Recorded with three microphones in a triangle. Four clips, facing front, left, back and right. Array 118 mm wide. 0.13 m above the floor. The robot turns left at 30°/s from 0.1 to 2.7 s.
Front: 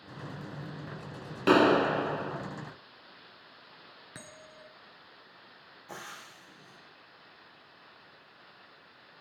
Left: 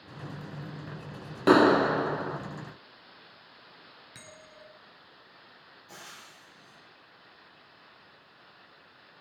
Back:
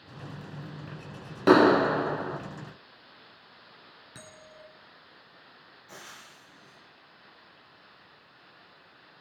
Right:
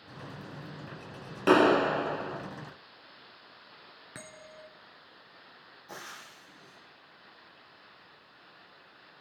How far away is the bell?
About 2 m.